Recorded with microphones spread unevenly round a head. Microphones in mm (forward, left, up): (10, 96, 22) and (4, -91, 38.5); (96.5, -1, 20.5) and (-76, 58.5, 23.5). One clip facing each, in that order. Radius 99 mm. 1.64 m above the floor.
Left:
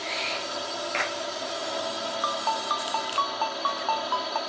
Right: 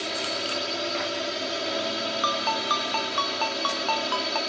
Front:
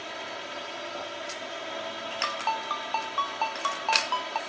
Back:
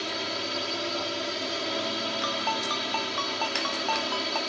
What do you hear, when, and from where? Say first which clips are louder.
0.0 s a drone: right 3 dB, back 6 dB; 155° right
2.2 s a ringtone: right 2 dB, back 2 dB; 130° right